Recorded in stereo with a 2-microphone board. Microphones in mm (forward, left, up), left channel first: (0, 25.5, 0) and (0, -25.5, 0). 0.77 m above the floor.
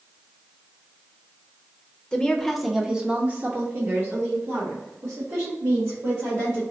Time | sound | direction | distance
2.1 | a woman speaking | 15° left (ahead or behind) | 0.8 m